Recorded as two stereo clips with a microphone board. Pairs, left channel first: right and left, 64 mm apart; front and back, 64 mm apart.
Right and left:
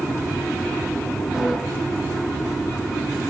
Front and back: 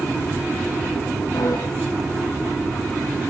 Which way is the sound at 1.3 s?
5° left.